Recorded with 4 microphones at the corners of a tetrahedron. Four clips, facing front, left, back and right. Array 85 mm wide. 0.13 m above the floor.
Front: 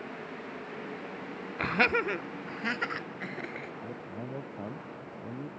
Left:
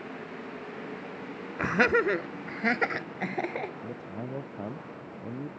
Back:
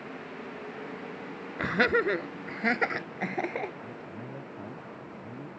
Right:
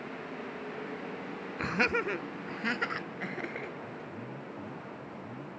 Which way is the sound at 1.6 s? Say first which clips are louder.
Left 6 dB, back 2 dB; 100° left.